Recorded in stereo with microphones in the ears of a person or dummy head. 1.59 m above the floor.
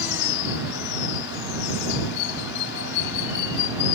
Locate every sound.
0.0 s running water: 65° left (ahead or behind)